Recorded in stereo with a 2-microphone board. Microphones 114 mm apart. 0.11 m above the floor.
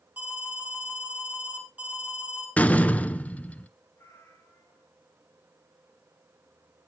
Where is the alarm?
15° right (ahead or behind), 2.5 m.